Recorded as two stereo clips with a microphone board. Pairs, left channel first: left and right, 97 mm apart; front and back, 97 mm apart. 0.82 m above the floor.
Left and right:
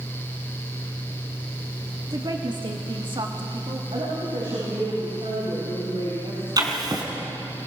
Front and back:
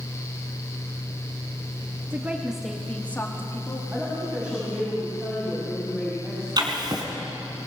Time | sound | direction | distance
2.1 | a woman speaking | 120° right | 1.3 m
3.9 | a woman speaking | 105° right | 6.5 m
6.6 | writing | 140° right | 3 m